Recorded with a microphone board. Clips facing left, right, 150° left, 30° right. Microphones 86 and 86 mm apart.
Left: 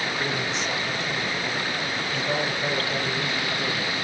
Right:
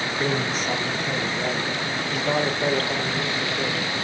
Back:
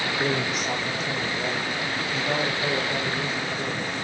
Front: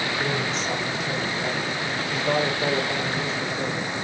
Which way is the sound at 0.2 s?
140° right.